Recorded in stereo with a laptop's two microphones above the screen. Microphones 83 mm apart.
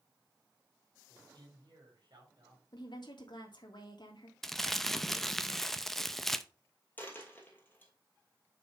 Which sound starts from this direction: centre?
Crumpling, at 4.4 s.